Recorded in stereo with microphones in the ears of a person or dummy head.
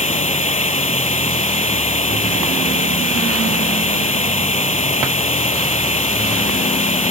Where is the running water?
30° left (ahead or behind).